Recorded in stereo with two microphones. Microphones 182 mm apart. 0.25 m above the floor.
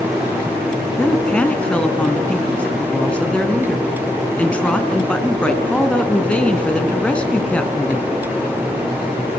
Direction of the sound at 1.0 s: 5° left (ahead or behind).